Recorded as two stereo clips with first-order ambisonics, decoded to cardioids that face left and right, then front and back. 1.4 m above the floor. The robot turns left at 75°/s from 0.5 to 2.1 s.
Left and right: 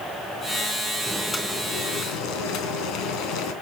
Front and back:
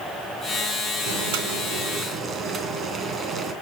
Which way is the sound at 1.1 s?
165° right.